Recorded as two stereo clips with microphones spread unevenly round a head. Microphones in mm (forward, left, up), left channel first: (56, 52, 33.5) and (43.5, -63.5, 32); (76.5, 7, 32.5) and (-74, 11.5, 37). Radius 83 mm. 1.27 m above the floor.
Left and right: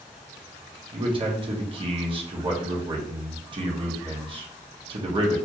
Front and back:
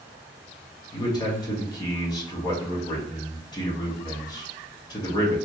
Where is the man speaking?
60° right, 0.9 m.